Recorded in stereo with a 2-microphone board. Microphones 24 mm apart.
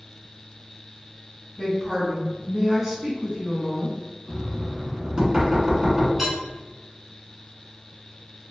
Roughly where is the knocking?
Right.